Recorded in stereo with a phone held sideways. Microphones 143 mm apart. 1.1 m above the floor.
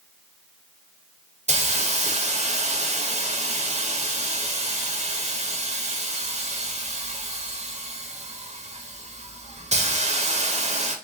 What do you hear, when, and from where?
1.5 s a hiss: 45° right (ahead or behind), 0.5 m